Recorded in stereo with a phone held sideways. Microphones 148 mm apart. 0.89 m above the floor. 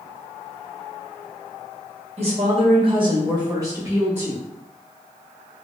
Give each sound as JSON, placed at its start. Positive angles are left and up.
{"t": 2.2, "sound": "a woman speaking", "side_deg": -50, "distance_m": 1.0}